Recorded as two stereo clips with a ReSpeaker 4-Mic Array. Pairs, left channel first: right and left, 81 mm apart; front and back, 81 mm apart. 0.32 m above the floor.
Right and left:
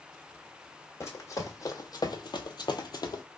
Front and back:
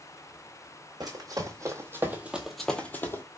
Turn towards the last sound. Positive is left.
turn(degrees=-55)